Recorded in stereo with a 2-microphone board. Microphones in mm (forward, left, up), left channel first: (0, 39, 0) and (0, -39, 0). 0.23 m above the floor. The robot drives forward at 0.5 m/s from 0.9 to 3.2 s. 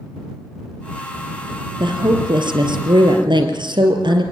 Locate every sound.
1.8 s a woman speaking: 75° right (ahead or behind), 4.5 m